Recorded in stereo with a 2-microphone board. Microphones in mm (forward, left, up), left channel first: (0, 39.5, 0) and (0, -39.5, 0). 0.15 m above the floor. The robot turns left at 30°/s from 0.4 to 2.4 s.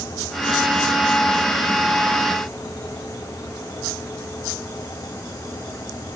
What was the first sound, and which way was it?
Only background noise.